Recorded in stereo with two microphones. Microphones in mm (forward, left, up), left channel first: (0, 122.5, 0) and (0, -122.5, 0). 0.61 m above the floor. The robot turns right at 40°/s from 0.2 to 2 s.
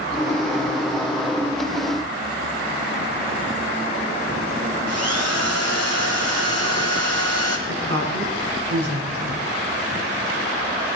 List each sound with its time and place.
4.9 s a drill: 70° right (ahead or behind), 2.5 m
7.7 s a woman speaking: 60° right (ahead or behind), 5 m